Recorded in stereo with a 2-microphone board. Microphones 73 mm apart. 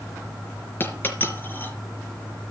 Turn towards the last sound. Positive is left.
turn(degrees=25)  # may be behind; listen again after turning